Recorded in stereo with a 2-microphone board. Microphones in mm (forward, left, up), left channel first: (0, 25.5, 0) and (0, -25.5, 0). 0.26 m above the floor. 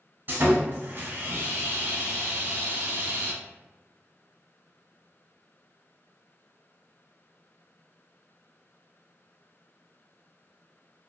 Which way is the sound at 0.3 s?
45° right (ahead or behind).